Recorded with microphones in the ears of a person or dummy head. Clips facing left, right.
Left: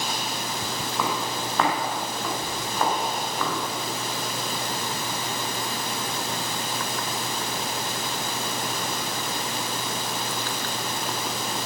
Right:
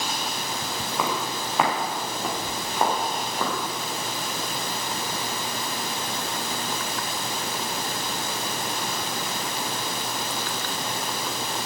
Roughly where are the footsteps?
Centre.